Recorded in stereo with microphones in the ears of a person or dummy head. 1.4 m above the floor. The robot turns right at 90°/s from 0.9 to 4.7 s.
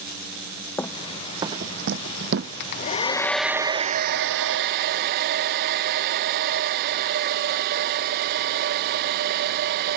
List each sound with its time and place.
0.8 s running footsteps: 10° left (ahead or behind); by 2.5 s 55° right (ahead or behind)
2.6 s a hair dryer: 110° left; by 10.0 s 60° right